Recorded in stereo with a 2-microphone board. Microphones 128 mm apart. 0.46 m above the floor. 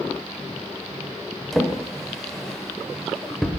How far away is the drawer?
About 0.8 m.